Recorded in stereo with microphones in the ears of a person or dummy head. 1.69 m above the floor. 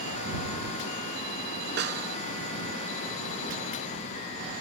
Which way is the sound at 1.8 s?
60° right (ahead or behind).